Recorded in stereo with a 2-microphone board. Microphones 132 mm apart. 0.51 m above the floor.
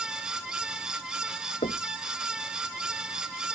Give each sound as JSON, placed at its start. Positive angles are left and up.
{"t": 1.6, "sound": "knocking", "side_deg": 65}